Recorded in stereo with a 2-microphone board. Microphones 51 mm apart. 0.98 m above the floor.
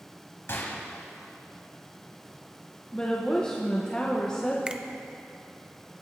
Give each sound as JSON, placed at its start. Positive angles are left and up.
{"t": 0.5, "sound": "a gunshot", "side_deg": 55, "distance_m": 1.4}
{"t": 2.9, "sound": "a woman speaking", "side_deg": 15, "distance_m": 0.9}
{"t": 4.7, "sound": "a finger snap", "side_deg": -20, "distance_m": 0.5}